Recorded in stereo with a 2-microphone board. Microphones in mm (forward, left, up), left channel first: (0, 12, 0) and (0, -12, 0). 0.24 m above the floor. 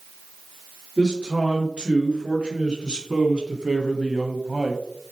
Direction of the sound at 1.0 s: 45° right (ahead or behind).